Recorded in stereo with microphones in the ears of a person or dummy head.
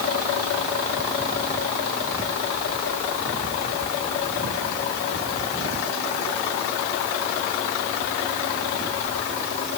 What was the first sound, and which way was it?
Only background noise.